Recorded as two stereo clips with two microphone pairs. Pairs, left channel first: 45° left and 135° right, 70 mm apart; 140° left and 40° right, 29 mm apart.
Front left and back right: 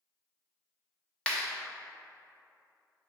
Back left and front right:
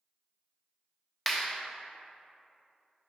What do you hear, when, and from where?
1.3 s a clap: 65° left, 0.5 m